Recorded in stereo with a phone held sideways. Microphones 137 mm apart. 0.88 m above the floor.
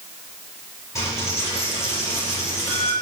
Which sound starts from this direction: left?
A dropped coin, at 0.9 s.